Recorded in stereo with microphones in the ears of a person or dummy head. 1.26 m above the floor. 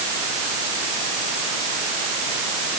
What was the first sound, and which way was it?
Only background noise.